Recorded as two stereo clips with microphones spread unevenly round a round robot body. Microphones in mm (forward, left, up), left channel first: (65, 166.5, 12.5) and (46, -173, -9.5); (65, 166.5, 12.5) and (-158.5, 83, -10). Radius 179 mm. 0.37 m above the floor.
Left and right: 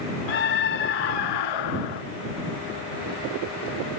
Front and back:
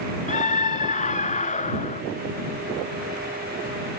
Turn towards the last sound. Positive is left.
turn(degrees=80)